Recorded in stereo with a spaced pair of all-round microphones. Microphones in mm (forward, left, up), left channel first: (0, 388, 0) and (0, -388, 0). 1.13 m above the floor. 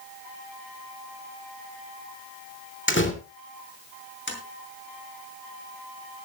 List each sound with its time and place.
2.9 s a door slam: 15° left (ahead or behind), 2.5 m
4.3 s tapping: 15° left (ahead or behind), 4 m